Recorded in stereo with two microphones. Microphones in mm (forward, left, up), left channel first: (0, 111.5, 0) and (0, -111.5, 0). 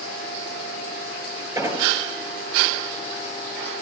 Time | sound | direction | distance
1.6 | an explosion | 10° right (ahead or behind) | 4.5 m